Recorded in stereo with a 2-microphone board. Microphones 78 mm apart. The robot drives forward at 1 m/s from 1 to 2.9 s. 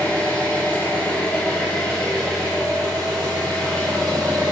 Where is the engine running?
20° left (ahead or behind), 1.8 m; by 4.5 s 10° left (ahead or behind), 3.5 m.